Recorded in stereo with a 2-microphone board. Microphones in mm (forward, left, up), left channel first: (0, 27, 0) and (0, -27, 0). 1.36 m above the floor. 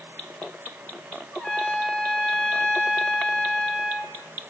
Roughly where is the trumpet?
Centre.